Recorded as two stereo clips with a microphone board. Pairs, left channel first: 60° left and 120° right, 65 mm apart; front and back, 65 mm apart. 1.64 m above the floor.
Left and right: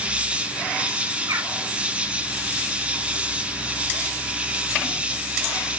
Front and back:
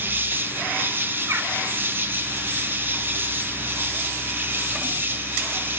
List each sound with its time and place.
0.0 s an insect: 175° right, 1.0 m
1.3 s a bird: 140° right, 3 m